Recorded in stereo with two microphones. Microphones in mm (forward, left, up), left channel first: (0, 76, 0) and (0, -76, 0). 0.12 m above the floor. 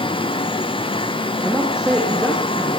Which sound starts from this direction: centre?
A man speaking, at 1.4 s.